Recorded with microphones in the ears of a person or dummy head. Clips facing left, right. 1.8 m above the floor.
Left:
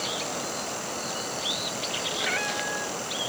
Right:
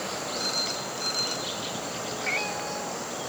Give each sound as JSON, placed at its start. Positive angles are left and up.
{"t": 0.4, "sound": "a phone ringing", "side_deg": -75}
{"t": 2.2, "sound": "a cat meowing", "side_deg": 15}